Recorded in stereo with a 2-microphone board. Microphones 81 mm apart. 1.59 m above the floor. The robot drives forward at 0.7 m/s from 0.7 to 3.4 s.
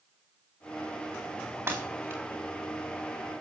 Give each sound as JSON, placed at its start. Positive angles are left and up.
{"t": 1.7, "sound": "breaking glass", "side_deg": -30, "distance_m": 5.0}